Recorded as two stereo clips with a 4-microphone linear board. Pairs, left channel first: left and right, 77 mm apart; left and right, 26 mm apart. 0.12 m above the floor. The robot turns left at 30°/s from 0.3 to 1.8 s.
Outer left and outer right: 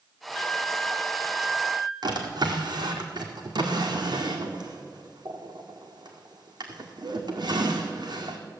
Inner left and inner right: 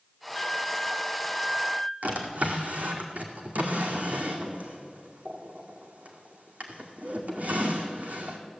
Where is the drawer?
70° right (ahead or behind), 1.8 m.